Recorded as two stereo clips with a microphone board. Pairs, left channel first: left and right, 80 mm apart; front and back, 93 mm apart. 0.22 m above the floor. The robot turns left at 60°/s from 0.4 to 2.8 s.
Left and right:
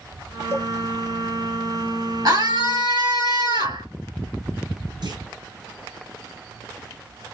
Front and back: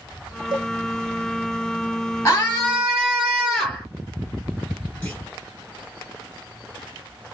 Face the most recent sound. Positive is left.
turn(degrees=-75)